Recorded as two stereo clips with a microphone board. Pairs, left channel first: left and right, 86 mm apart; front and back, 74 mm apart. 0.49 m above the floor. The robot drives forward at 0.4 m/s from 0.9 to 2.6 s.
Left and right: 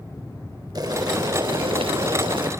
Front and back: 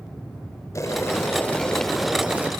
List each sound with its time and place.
0.8 s boiling: 50° right, 0.7 m; by 2.5 s 115° right, 0.6 m